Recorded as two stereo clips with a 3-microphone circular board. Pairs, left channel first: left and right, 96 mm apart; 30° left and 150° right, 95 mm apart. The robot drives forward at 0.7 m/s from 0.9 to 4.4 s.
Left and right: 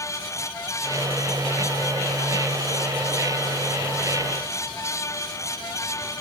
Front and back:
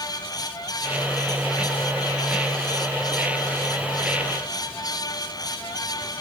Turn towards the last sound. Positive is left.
No sound to turn to.